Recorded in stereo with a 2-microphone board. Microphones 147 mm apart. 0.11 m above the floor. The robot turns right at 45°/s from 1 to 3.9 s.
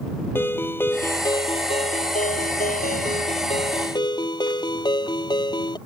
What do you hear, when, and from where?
0.3 s a ringtone: 15° left; by 5.8 s 145° left